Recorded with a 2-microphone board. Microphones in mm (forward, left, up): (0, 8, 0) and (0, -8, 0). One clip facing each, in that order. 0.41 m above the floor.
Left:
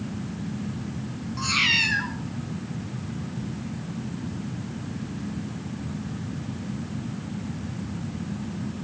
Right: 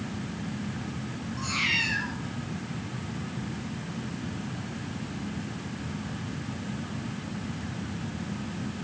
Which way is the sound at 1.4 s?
40° left (ahead or behind).